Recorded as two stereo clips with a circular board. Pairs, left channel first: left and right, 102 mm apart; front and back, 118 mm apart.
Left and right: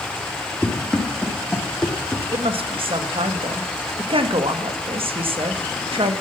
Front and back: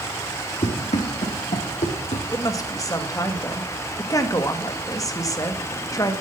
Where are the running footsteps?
10° left, 3.5 m.